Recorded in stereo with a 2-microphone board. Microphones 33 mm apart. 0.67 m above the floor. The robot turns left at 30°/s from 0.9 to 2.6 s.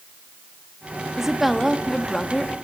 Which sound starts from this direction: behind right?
A woman speaking, at 1.2 s.